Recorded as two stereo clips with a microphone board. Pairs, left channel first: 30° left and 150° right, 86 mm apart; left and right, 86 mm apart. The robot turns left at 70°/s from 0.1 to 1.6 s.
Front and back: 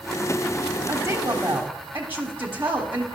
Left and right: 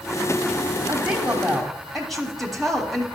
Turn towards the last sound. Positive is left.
turn(degrees=180)